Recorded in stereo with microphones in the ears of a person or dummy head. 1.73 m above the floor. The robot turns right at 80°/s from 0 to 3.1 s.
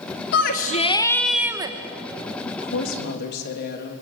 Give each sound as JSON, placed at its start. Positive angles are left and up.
{"t": 0.3, "sound": "a shout", "azimuth_deg": 105, "distance_m": 1.2}
{"t": 2.5, "sound": "a woman speaking", "azimuth_deg": 70, "distance_m": 3.0}